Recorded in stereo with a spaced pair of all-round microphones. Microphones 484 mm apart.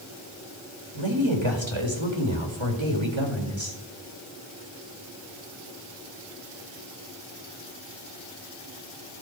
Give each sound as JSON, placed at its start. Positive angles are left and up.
{"t": 0.9, "sound": "a woman speaking", "side_deg": -70, "distance_m": 2.5}